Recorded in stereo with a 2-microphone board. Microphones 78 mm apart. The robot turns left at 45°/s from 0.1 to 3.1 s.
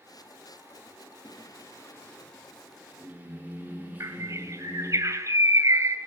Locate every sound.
1.2 s singing: 60° left, 7 m; by 5.0 s 20° right, 7 m
4.0 s a bird: 40° right (ahead or behind), 2 m